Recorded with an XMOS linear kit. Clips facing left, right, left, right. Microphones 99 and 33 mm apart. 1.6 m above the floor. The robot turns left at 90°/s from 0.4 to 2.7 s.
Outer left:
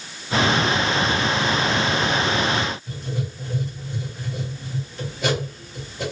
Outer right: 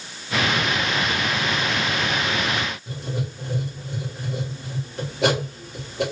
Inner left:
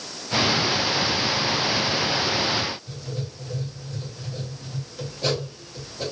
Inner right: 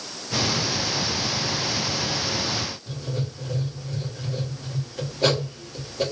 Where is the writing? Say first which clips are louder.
Even, inner right 3 dB; 70° right (ahead or behind), 1.7 m.